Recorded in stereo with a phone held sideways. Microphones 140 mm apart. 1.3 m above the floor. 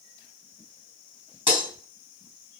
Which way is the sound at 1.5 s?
60° left (ahead or behind).